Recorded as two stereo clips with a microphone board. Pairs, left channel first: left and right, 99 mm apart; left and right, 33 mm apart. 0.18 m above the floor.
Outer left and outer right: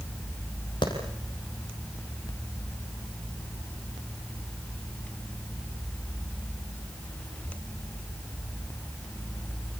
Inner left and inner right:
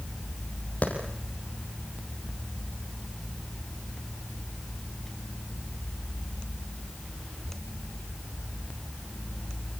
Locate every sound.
0.8 s a clap: 50° left (ahead or behind), 6 m